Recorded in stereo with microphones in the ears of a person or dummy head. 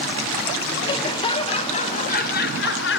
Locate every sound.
0.8 s laughter: 25° left (ahead or behind), 1.7 m; by 3.0 s 55° left (ahead or behind), 0.9 m